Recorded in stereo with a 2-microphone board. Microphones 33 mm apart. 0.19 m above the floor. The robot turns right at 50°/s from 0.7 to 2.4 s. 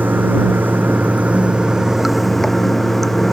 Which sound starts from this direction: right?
Running water, at 0.0 s.